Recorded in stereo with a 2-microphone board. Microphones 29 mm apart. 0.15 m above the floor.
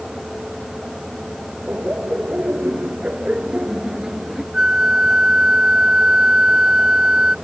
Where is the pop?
I don't hear a pop.